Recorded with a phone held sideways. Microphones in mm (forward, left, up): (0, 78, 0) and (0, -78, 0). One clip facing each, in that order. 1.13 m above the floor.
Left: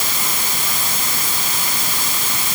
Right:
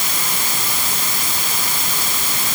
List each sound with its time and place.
Only background noise.